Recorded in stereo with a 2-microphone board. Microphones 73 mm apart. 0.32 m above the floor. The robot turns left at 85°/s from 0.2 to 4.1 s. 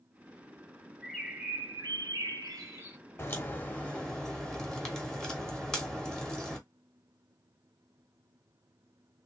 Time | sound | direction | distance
1.0 | a bird | 5° left | 1.5 m
3.2 | a crack | 30° left (ahead or behind) | 1.2 m